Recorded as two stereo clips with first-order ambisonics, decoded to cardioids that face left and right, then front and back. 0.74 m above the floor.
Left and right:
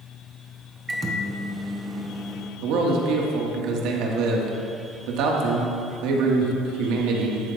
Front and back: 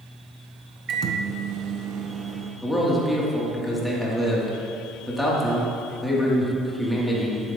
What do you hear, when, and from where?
0.9 s a microwave: 160° right, 0.6 m
2.6 s a man speaking: 90° right, 1.2 m